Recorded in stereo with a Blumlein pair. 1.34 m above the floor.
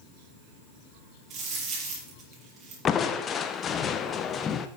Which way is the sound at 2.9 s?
25° left.